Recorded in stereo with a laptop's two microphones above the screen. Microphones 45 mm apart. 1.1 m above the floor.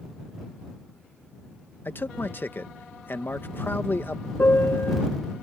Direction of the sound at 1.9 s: 50° left (ahead or behind).